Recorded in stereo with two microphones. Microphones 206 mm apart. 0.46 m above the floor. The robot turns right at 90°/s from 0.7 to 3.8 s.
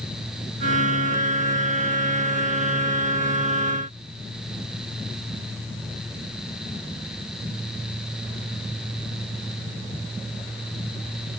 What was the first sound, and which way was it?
Only background noise.